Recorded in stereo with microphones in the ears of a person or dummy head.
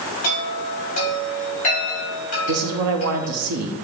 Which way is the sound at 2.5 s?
60° right (ahead or behind).